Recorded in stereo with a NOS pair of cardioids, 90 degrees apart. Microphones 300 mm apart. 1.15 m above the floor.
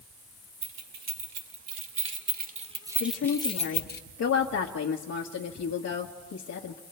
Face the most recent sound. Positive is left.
turn(degrees=60)